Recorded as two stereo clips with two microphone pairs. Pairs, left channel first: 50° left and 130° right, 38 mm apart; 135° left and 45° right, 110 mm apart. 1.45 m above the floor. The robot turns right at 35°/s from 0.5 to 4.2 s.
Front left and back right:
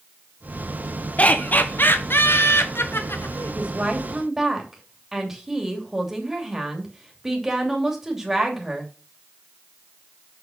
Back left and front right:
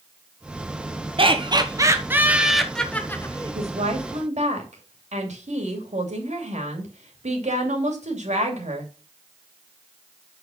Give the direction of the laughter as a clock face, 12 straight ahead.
12 o'clock.